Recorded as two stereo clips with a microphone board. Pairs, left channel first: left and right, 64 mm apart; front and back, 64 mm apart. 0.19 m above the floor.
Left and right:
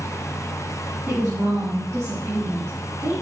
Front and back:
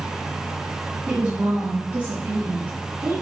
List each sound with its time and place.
1.1 s a woman speaking: 130° right, 1.9 m; by 3.1 s 140° right, 4.5 m